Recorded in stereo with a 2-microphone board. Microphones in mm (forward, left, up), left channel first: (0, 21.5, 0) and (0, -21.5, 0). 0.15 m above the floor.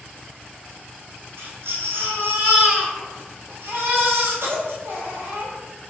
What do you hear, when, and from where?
1.4 s a baby crying: 70° right (ahead or behind), 1.5 m